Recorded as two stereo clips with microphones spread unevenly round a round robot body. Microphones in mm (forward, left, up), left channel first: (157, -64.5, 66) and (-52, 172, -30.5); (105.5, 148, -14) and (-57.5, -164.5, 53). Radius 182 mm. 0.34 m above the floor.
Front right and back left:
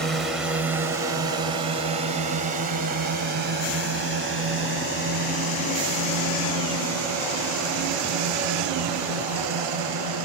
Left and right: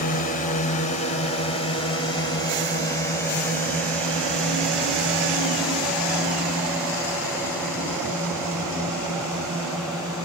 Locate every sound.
0.0 s a drone: 70° left; by 10.3 s 155° left